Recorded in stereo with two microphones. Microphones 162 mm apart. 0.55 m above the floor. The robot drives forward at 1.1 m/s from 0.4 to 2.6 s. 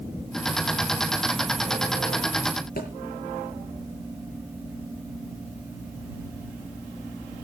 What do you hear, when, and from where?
2.8 s a thud: 70° left (ahead or behind), 6 m